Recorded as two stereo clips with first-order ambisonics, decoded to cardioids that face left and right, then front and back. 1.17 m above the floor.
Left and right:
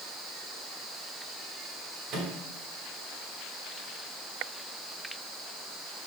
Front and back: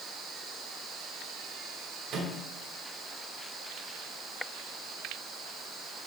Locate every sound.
2.1 s a microwave: 135° right, 3.5 m